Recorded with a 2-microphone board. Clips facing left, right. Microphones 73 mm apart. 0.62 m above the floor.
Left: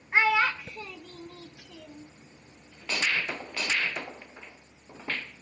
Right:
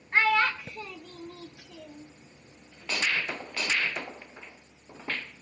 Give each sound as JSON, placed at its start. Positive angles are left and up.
{"t": 0.1, "sound": "a child speaking", "side_deg": 10, "distance_m": 0.7}